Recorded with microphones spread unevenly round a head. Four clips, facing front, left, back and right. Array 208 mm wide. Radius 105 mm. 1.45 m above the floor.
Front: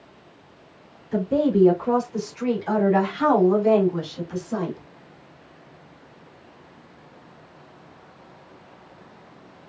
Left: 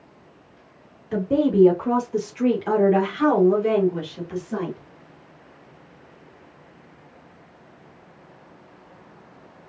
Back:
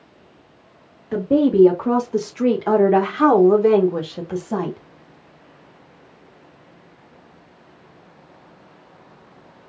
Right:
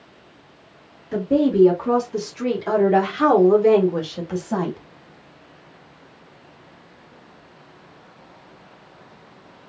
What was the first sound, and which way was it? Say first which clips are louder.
A woman speaking: right 2 dB, back 5 dB; 165° left.